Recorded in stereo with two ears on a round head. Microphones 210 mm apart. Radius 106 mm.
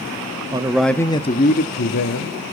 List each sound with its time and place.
0.5 s a man speaking: 20° right (ahead or behind), 0.8 m; by 2.3 s 55° left (ahead or behind), 1.5 m